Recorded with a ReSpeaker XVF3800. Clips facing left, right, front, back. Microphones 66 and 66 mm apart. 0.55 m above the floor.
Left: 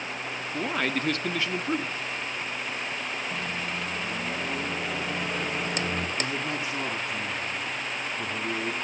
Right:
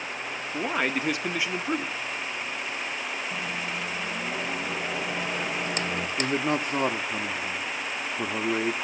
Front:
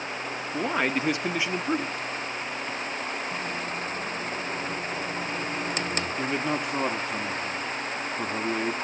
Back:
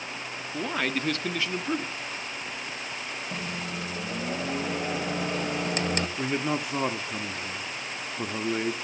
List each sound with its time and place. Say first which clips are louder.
0.5 s a man speaking: right 1 dB, front 3 dB; 40° right, 0.6 m
3.3 s a microwave: even, front 3 dB; 175° right, 3 m
6.2 s a man speaking: right 4 dB, front 1 dB; 95° right, 0.8 m